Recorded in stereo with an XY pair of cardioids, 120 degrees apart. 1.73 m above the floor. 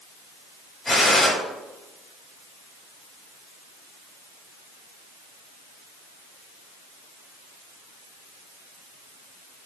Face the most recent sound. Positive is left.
turn(degrees=20)